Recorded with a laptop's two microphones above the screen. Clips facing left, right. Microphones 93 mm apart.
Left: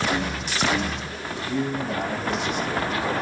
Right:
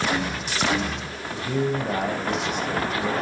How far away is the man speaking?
About 5 m.